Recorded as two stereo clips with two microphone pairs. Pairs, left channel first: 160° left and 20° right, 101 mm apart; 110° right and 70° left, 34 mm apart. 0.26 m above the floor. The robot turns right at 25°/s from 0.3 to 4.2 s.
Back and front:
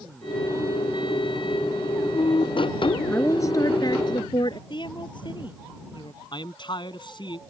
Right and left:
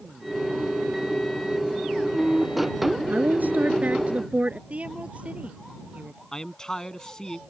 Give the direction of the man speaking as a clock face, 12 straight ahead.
6 o'clock.